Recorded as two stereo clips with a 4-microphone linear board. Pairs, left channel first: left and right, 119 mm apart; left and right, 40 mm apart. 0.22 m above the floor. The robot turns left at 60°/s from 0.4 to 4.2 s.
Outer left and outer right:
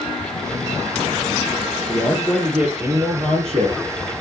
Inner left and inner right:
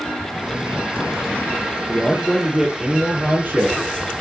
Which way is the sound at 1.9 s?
25° left.